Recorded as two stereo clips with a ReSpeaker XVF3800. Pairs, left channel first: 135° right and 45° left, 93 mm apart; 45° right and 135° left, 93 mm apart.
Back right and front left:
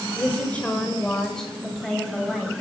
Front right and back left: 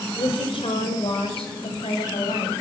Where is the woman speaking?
65° right, 4.5 m; by 2.6 s 45° right, 7.5 m.